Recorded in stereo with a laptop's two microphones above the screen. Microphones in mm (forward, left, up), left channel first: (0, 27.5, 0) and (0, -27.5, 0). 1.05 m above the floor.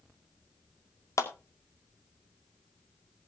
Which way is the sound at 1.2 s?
70° left (ahead or behind).